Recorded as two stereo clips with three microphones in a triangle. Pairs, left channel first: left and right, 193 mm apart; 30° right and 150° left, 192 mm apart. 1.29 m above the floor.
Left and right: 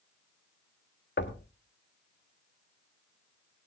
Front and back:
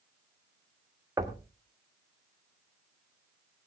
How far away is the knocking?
About 1.4 m.